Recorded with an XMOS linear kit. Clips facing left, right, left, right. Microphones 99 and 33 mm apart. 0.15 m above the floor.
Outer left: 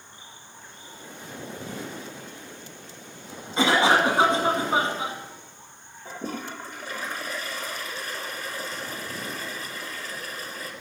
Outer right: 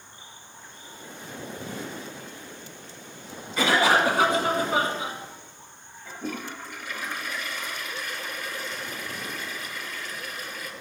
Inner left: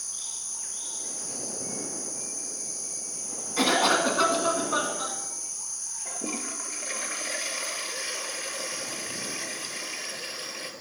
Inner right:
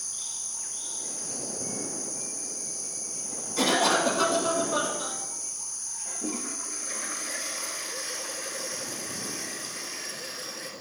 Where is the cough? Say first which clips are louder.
Outer left 1 dB, inner left 1 dB; 25° left (ahead or behind), 1.8 m.